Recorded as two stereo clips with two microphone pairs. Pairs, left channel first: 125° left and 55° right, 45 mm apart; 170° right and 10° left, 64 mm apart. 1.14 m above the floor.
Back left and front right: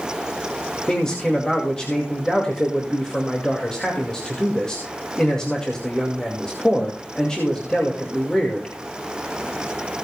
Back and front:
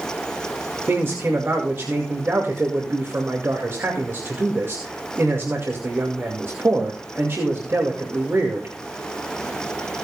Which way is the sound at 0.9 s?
50° left.